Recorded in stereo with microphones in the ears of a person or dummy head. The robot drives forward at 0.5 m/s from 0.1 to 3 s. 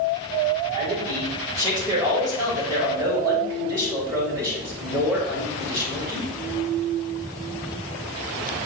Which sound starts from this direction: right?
A man speaking, at 0.8 s.